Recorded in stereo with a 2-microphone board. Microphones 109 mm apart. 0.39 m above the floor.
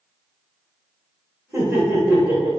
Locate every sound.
1.5 s laughter: 25° right (ahead or behind), 1.2 m